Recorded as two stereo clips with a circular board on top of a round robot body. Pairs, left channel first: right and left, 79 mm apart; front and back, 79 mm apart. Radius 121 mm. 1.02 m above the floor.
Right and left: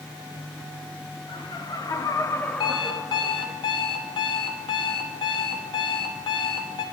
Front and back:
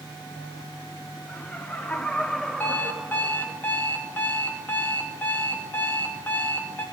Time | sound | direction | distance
1.3 | laughter | 70° right | 1.6 m
2.6 | an alarm clock | 70° right | 0.9 m